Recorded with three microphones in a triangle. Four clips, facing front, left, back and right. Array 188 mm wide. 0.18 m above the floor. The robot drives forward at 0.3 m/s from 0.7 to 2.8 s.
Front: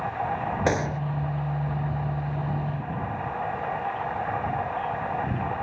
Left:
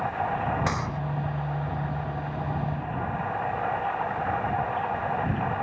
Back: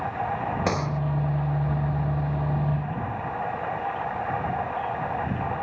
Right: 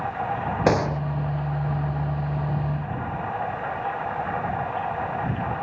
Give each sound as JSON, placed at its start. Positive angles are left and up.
{"t": 0.7, "sound": "a gunshot", "azimuth_deg": -70}